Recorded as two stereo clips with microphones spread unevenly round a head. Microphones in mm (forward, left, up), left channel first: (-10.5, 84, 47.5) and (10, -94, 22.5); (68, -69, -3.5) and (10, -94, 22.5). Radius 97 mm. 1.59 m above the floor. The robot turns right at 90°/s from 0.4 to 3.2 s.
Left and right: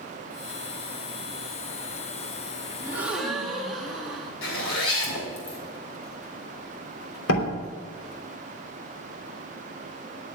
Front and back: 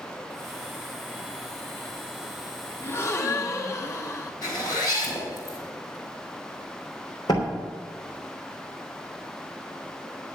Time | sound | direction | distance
2.8 | a gasp | 5° right | 1.0 m
4.4 | a zipper | 100° left | 3 m
7.3 | a door slam | 100° left | 3 m